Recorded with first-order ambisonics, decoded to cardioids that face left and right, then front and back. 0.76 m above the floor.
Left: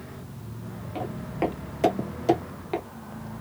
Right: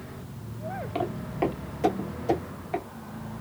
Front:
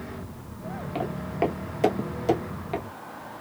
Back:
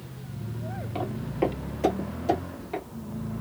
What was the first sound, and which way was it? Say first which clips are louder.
Footsteps: even, front 1 dB; 55° right.